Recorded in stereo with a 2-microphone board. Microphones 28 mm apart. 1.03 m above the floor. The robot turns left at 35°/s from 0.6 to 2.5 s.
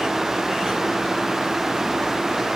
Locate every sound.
Only background noise.